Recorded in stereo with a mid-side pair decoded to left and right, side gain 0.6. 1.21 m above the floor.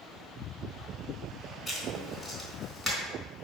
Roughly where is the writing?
Ahead.